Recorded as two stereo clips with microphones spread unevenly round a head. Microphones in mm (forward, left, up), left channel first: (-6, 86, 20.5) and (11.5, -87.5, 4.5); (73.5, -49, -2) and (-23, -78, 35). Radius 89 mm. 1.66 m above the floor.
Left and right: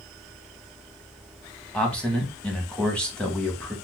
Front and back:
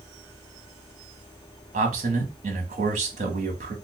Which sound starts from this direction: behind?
A man speaking, at 1.7 s.